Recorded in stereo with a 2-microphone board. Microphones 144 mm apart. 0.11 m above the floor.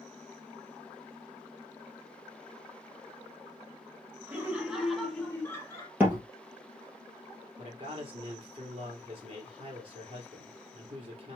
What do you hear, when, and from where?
4.3 s laughter: 15° right (ahead or behind), 1.4 m; by 5.9 s 25° left (ahead or behind), 1.4 m
6.0 s a door slam: 15° right (ahead or behind), 2 m
7.6 s a man speaking: 40° right (ahead or behind), 2.5 m